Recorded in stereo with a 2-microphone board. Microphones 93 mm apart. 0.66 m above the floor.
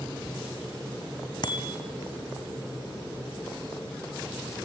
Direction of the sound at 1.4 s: 50° left (ahead or behind).